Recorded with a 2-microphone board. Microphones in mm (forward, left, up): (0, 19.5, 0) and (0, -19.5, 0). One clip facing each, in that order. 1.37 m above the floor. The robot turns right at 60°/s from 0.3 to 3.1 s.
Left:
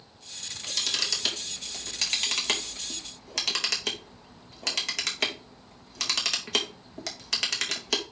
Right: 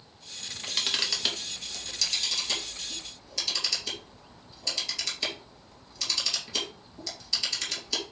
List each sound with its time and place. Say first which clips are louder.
0.4 s a camera shutter: right 1 dB; 60° right (ahead or behind), 2.5 m; by 8.0 s 75° left (ahead or behind), 2.5 m